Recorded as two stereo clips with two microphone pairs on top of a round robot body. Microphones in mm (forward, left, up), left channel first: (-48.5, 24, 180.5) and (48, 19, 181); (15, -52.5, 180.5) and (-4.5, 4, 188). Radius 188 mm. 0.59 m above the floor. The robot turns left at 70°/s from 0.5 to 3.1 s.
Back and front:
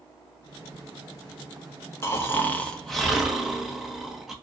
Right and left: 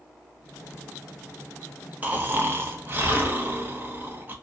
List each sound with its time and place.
2.0 s snoring: 160° left, 1.0 m; by 4.3 s 85° left, 1.0 m